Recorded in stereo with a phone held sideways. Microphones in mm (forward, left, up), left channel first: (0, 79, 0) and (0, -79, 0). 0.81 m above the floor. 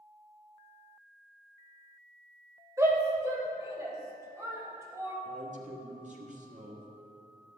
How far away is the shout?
About 2.5 m.